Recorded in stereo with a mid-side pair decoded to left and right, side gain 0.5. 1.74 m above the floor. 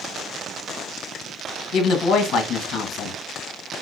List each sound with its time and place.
1.7 s a woman speaking: 65° left, 1.1 m